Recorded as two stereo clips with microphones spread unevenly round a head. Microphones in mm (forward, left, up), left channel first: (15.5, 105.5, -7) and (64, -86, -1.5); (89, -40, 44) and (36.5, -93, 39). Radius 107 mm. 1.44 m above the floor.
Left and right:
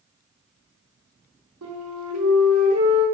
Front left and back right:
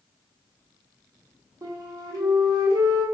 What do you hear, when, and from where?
1.6 s a flute: 95° right, 1.0 m